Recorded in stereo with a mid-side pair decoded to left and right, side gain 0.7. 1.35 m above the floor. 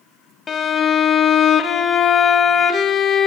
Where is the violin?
30° left, 1.2 m.